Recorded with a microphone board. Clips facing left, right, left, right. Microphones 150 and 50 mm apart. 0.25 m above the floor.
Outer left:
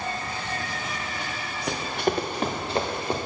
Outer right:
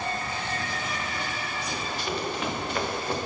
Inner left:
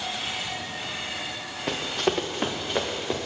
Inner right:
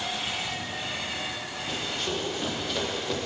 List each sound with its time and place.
1.7 s running footsteps: 65° left (ahead or behind), 1.4 m; by 3.2 s 15° left (ahead or behind), 1.4 m